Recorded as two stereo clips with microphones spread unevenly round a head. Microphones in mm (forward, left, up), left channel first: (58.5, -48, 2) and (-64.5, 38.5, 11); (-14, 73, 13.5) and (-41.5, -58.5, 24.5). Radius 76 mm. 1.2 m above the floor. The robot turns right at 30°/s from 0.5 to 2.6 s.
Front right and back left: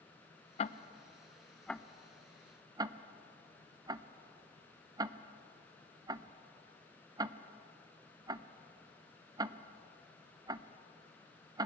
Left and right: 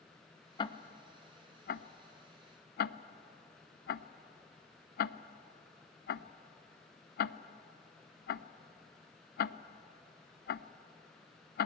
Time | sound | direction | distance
0.6 | ticking | 15° left | 0.6 m